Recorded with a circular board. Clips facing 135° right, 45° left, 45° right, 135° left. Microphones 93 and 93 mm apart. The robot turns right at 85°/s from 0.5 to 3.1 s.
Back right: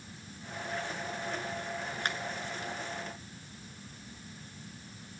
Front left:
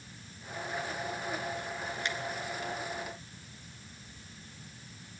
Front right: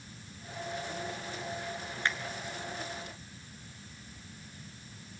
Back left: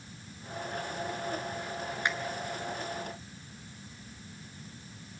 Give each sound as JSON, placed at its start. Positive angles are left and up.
{"t": 2.0, "sound": "a finger snap", "azimuth_deg": -155, "distance_m": 2.0}